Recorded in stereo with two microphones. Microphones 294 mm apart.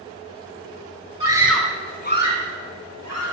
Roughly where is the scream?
Right.